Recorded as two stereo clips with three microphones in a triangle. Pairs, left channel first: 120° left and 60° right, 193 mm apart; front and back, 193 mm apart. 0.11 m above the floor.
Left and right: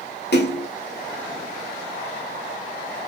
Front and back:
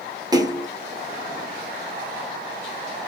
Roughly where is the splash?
Left.